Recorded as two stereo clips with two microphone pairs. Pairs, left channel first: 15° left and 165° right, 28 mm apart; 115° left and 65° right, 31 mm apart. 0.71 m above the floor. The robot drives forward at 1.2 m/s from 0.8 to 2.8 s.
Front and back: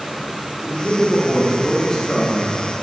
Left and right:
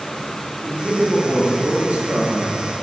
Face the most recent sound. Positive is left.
turn(degrees=-100)